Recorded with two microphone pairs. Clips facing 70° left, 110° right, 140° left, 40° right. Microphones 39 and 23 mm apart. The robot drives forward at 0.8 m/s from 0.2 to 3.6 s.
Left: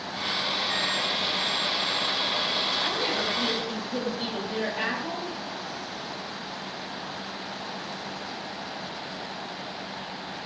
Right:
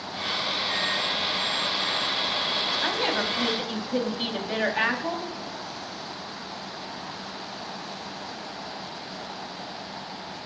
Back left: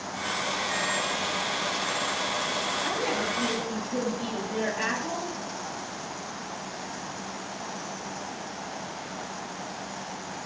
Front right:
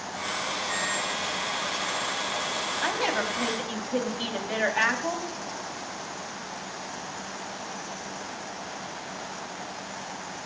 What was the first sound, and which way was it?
A woman speaking, 55° right.